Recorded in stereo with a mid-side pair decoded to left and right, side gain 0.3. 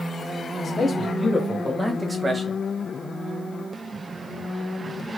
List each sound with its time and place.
0.6 s a man speaking: 35° left, 1.4 m; by 2.6 s 65° right, 0.9 m